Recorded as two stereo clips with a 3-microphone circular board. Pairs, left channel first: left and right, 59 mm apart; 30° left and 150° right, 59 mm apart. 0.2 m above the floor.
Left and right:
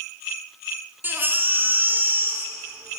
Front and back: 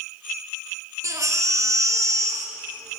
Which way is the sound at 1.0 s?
145° right.